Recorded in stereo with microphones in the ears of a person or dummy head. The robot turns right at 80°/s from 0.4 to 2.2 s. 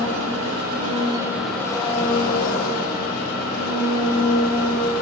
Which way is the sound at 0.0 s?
85° right.